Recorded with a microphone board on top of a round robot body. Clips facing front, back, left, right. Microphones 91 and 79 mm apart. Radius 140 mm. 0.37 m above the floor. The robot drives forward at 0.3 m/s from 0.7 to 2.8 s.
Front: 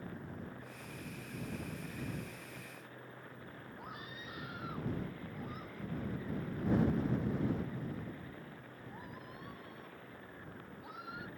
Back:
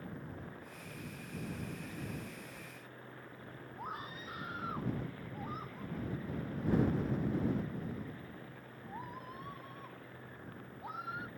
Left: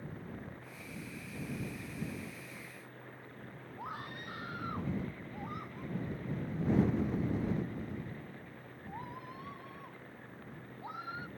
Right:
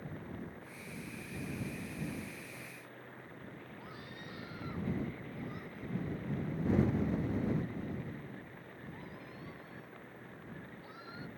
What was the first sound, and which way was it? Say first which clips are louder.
A scream: back 6 dB, left 5 dB; 125° left.